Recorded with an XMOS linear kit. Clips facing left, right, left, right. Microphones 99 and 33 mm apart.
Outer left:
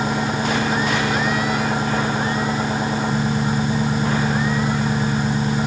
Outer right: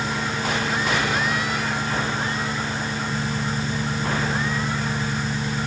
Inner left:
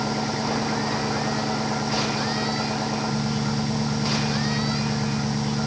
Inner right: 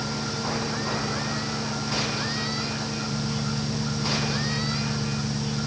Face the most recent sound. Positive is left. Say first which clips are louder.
# outer left 5 dB, inner left 4 dB
turn(degrees=40)  # may be behind; listen again after turning